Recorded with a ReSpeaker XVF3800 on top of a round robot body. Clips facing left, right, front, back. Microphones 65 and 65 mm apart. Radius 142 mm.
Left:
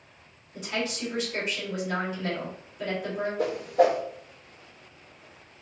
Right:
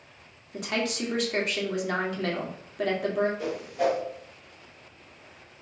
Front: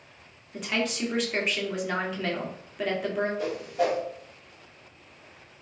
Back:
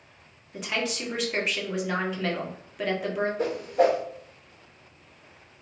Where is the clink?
I don't hear a clink.